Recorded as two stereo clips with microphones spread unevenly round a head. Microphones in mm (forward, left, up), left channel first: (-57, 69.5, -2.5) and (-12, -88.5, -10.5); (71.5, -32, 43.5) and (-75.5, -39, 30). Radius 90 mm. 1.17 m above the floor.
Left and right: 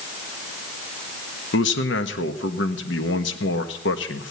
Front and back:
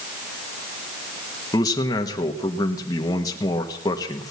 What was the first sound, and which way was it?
A man speaking, 75° left.